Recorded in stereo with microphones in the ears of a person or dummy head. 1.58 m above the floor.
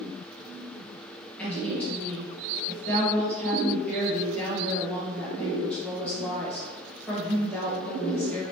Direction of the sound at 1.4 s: 10° left (ahead or behind).